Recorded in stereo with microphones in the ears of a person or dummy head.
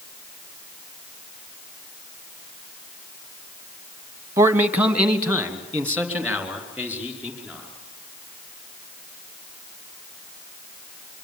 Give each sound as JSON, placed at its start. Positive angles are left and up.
{"t": 4.4, "sound": "a man speaking", "side_deg": -15, "distance_m": 1.0}